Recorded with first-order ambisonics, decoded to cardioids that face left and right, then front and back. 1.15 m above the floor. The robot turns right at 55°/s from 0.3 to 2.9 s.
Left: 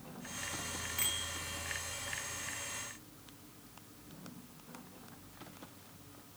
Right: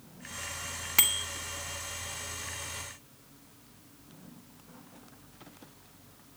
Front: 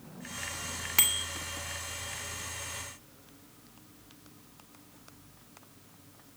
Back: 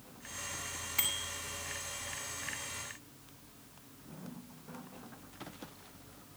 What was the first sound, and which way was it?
A bicycle bell, 55° right.